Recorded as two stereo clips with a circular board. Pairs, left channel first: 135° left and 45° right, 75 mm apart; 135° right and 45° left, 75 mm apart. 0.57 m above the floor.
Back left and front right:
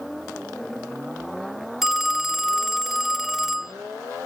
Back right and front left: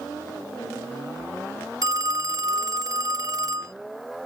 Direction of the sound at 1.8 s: 35° left.